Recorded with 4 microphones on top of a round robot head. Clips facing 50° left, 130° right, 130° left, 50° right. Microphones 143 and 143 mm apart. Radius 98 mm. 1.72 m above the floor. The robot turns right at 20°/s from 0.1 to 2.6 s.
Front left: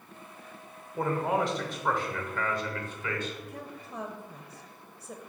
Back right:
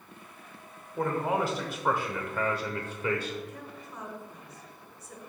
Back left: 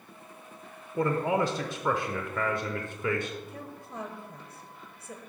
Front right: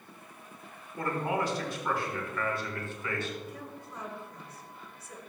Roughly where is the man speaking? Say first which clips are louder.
Even, back left 5 dB; behind left.